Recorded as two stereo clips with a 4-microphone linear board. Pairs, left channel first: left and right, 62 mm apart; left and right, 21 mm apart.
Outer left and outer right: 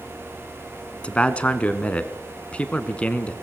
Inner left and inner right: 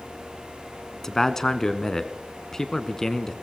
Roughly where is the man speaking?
Centre.